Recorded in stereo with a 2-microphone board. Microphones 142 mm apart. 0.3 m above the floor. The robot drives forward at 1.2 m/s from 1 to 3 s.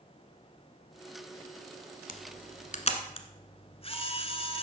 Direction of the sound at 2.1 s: 75° left (ahead or behind).